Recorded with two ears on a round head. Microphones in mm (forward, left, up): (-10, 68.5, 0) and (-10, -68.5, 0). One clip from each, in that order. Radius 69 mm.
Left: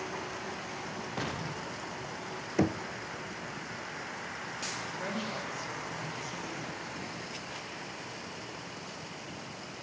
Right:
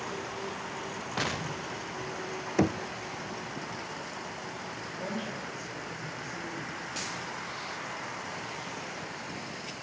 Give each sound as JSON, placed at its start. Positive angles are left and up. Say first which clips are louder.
{"t": 1.2, "sound": "an explosion", "louder": "right 6 dB", "side_deg": -30, "distance_m": 0.9}
{"t": 2.6, "sound": "knocking", "louder": "right 2 dB", "side_deg": -10, "distance_m": 0.6}
{"t": 4.8, "sound": "a woman speaking", "louder": "even", "side_deg": 30, "distance_m": 7.0}